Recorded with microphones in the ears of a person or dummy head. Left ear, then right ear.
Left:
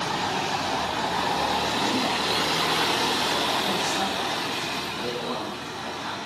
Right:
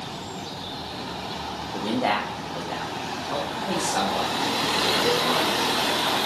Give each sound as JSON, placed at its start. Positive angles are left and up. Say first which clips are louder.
{"t": 1.7, "sound": "a man speaking", "louder": "even", "side_deg": -75, "distance_m": 1.1}